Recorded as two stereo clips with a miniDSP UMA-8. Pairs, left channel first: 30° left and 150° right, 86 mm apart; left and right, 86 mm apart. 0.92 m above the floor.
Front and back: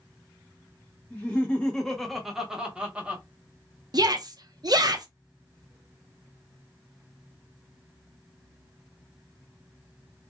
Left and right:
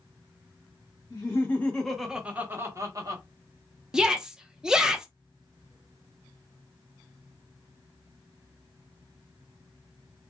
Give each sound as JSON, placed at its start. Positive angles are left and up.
{"t": 1.1, "sound": "laughter", "azimuth_deg": 90, "distance_m": 0.8}
{"t": 3.9, "sound": "a shout", "azimuth_deg": -170, "distance_m": 0.6}